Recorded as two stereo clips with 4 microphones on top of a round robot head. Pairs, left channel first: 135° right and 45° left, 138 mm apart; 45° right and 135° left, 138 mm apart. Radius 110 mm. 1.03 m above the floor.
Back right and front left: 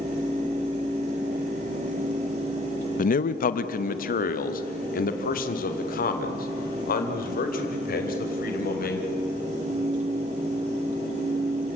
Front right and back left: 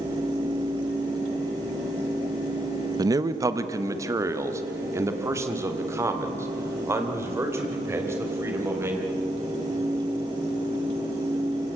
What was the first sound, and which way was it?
A man speaking, 160° right.